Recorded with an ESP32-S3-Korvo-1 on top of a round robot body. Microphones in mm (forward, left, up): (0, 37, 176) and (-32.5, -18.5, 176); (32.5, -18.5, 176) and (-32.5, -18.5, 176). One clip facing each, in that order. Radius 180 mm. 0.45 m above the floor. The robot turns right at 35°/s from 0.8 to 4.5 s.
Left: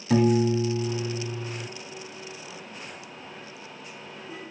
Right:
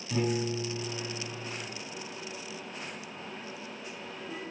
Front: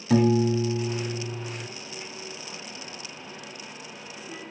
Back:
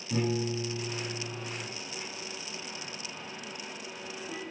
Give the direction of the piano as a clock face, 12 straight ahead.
11 o'clock.